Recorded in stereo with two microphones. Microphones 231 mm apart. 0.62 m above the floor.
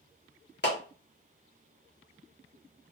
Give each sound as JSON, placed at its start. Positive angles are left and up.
{"t": 0.6, "sound": "a clap", "side_deg": 50, "distance_m": 1.0}